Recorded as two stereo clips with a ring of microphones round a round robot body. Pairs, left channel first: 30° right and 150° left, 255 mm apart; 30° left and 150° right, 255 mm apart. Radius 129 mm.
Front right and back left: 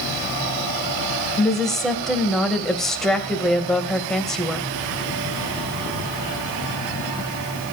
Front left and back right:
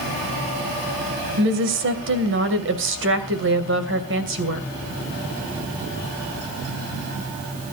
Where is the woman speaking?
120° right, 3 m.